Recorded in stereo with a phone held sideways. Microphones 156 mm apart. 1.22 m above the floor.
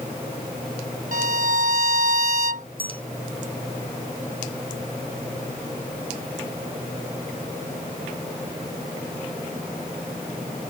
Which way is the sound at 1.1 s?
70° right (ahead or behind).